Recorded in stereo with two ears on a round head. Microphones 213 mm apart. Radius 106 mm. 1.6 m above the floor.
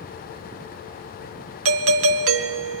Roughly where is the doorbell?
Right.